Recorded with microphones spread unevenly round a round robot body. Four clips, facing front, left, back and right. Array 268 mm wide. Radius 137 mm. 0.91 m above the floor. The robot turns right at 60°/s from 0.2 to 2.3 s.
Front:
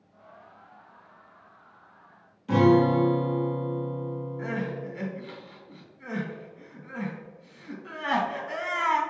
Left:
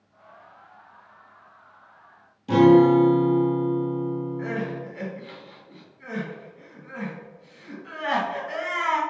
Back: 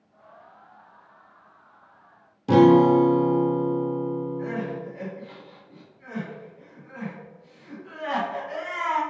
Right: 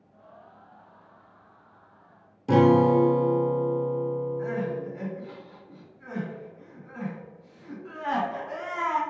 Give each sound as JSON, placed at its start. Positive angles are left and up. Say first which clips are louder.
{"t": 2.5, "sound": "a guitar", "louder": "left 4 dB, back 5 dB", "azimuth_deg": -165, "distance_m": 0.6}
{"t": 4.4, "sound": "crying", "louder": "even, back 2 dB", "azimuth_deg": 25, "distance_m": 1.7}